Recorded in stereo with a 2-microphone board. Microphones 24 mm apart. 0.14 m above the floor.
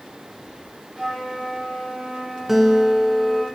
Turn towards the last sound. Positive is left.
turn(degrees=-10)  # may be behind; listen again after turning